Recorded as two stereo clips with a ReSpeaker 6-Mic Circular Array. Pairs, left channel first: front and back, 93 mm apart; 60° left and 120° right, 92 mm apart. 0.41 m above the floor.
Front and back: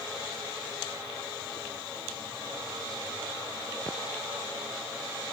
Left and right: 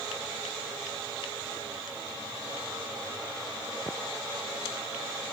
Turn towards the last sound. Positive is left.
No sound to turn to.